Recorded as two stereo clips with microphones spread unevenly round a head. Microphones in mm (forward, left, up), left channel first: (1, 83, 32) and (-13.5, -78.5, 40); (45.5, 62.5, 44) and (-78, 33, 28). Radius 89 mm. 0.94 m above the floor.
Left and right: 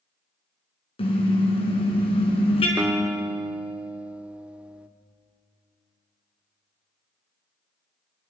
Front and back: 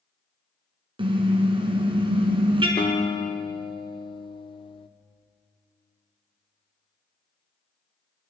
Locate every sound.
1.0 s a car horn: 145° left, 4 m
2.8 s a guitar: 10° right, 1.0 m